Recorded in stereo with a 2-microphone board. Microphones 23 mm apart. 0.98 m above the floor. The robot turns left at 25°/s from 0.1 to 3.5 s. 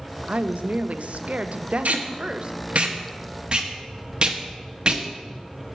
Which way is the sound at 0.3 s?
85° right.